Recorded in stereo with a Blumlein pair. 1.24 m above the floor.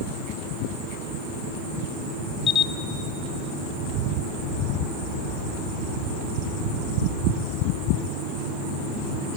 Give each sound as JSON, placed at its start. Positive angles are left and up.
{"t": 2.5, "sound": "a camera shutter", "azimuth_deg": 20, "distance_m": 0.5}